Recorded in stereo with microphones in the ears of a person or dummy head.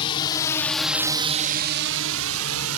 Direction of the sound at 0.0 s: 30° left (ahead or behind).